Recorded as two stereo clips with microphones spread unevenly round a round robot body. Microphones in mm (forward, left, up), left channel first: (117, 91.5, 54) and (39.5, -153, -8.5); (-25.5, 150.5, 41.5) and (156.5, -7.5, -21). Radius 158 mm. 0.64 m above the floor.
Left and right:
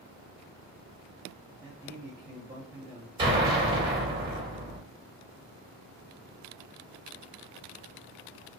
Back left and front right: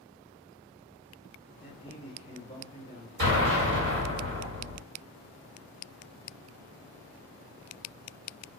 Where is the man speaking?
135° right, 0.8 m.